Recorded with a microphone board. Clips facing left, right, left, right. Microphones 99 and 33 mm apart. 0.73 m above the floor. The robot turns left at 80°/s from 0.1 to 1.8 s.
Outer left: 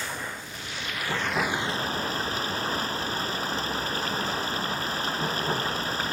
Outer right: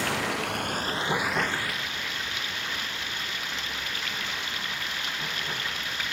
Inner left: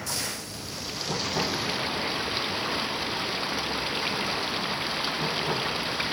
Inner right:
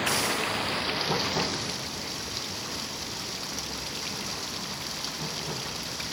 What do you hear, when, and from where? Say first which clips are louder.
0.0 s running water: outer right 7 dB, inner right 7 dB; 80° right; by 6.1 s 145° left